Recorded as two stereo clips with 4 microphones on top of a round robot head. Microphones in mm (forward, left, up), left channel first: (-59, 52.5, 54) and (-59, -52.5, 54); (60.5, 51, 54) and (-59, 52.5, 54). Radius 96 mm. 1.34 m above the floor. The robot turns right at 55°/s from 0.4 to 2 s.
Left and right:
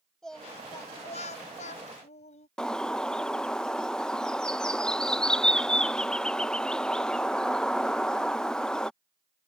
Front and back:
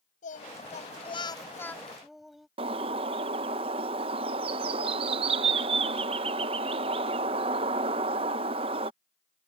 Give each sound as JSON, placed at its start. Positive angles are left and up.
{"t": 0.2, "sound": "singing", "azimuth_deg": 5}
{"t": 2.6, "sound": "a bird", "azimuth_deg": 170}